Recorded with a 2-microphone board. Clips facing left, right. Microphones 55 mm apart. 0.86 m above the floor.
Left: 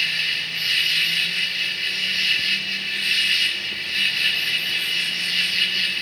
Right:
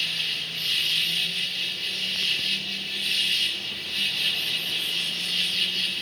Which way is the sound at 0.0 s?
60° left (ahead or behind).